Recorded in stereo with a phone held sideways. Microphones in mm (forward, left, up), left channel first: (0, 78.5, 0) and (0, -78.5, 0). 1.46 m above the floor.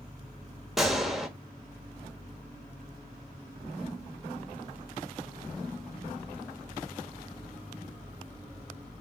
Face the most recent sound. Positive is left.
turn(degrees=0)  # may be behind; listen again after turning